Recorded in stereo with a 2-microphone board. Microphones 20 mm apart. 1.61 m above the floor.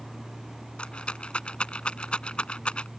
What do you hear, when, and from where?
0.8 s a rattle: 65° left (ahead or behind)